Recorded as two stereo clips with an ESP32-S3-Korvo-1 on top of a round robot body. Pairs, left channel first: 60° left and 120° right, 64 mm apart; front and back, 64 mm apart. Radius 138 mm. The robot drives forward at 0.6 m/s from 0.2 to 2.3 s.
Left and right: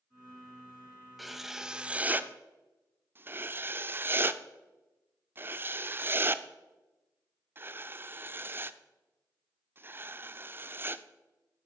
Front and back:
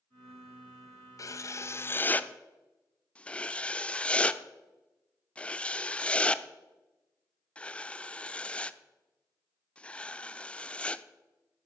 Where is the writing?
30° right, 1.1 m; by 11.0 s 70° right, 0.7 m.